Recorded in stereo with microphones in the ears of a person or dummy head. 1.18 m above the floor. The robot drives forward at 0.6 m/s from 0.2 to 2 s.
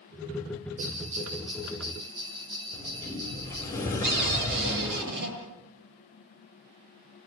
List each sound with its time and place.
0.8 s a bell: 35° right (ahead or behind), 1.5 m; by 3.7 s 25° right (ahead or behind), 2.0 m
2.7 s a sliding door: 15° left (ahead or behind), 5 m
4.0 s a cupboard door: 55° right (ahead or behind), 7.5 m